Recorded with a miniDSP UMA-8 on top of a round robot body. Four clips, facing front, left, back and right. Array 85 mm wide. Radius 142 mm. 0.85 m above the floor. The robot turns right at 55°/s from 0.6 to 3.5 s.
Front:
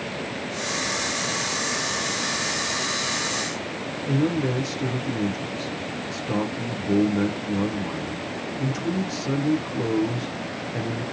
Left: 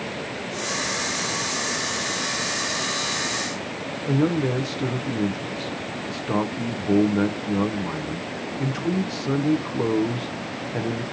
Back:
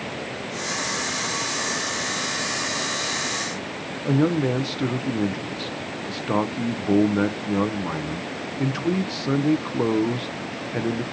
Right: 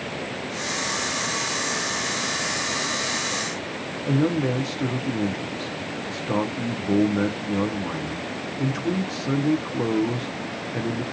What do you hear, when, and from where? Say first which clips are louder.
4.0 s a man speaking: even, back 3 dB; 170° left, 0.5 m